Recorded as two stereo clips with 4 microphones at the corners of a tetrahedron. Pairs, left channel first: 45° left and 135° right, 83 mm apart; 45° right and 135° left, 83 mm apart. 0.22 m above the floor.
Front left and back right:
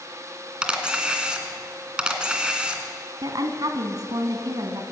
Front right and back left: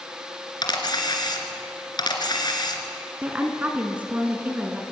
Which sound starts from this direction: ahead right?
A camera shutter, at 0.6 s.